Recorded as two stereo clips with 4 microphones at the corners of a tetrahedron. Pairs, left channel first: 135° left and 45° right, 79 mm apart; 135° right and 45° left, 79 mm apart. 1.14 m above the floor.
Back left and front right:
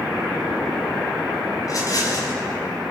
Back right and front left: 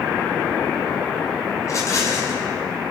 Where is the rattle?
175° left, 5.5 m.